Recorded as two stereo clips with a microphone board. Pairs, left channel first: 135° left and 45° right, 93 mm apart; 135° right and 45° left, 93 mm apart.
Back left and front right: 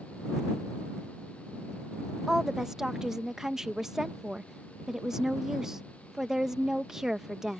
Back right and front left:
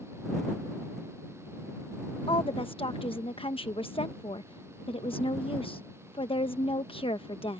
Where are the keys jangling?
No keys jangling in this recording.